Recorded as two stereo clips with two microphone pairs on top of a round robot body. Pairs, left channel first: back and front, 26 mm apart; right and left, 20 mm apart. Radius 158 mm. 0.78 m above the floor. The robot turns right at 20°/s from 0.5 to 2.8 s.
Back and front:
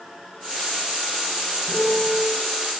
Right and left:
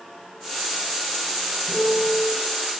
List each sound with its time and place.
1.7 s a piano: 55° left, 7 m; by 2.3 s 65° left, 7 m